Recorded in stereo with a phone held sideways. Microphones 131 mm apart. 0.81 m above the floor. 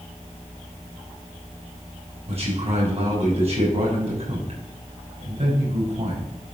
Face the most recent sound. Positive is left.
turn(degrees=-50)  # may be behind; listen again after turning